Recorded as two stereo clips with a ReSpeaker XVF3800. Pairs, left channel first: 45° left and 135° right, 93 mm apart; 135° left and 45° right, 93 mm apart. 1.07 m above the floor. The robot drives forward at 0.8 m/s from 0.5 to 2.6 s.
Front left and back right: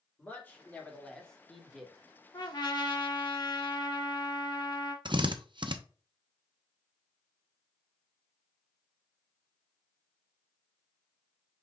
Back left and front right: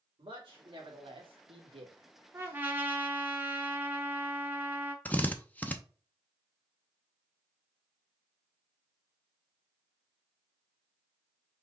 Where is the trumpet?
15° left, 1.2 m; by 5.0 s 20° left, 1.0 m.